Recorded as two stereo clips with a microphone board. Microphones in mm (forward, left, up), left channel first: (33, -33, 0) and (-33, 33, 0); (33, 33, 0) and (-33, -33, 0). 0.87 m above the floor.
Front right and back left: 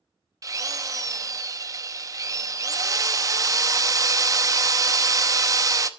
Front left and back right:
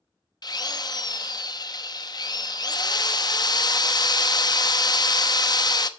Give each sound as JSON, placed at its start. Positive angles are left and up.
{"t": 0.4, "sound": "a drill", "azimuth_deg": 85, "distance_m": 0.8}